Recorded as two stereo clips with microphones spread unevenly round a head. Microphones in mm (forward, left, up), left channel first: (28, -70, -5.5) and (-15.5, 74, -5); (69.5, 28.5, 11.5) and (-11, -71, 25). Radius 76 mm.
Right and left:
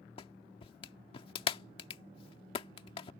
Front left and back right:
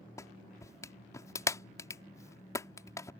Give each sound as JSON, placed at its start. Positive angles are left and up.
{"t": 0.2, "sound": "a clap", "azimuth_deg": -15}